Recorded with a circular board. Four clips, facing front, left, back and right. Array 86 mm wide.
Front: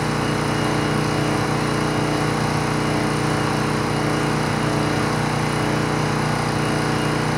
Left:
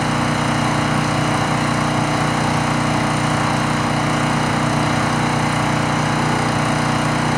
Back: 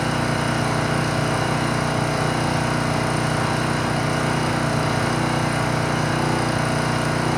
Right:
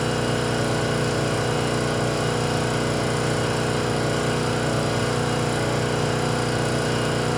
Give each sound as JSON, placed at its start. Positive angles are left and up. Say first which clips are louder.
{"t": 0.0, "sound": "an engine running", "louder": "left 5 dB, front 1 dB", "azimuth_deg": 85, "distance_m": 3.5}